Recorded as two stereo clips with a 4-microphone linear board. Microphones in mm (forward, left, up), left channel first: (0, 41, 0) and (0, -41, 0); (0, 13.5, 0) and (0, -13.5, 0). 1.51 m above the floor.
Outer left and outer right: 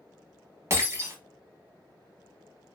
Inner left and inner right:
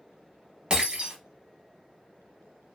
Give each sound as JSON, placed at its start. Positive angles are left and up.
{"t": 0.7, "sound": "breaking glass", "side_deg": -35, "distance_m": 0.9}